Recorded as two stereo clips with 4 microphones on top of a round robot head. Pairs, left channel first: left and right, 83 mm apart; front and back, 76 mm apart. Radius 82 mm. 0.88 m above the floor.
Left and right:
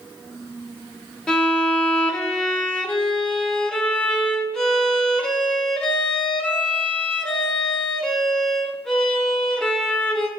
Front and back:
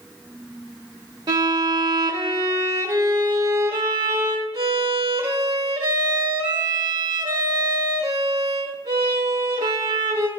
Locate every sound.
1.3 s a violin: 170° left, 0.6 m